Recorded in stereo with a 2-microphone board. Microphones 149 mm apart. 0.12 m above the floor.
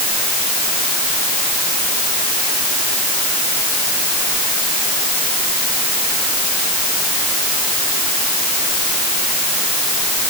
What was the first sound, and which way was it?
Only background noise.